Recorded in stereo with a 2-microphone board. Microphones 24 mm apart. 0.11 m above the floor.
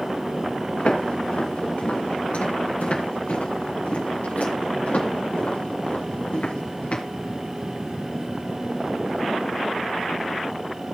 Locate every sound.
0.8 s footsteps: 80° left, 4.5 m; by 7.0 s 65° left (ahead or behind), 6 m